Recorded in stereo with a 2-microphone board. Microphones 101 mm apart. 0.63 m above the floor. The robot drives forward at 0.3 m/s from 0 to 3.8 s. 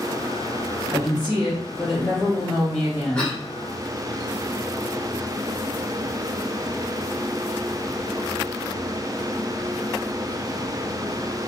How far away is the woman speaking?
About 0.7 m.